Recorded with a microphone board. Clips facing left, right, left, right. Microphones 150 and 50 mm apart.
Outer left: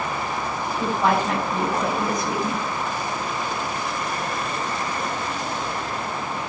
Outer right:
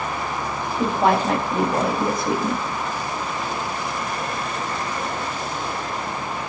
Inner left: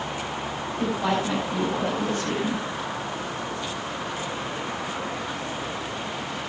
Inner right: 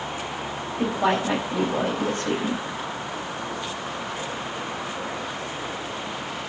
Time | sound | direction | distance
0.8 | a woman speaking | 30° right (ahead or behind) | 4.5 m